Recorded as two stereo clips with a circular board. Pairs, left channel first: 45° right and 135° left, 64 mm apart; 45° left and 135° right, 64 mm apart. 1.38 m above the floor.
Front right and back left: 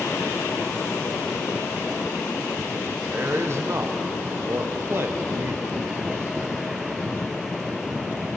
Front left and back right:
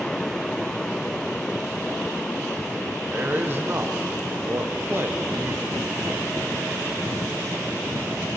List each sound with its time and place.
3.1 s a man speaking: 175° left, 1.1 m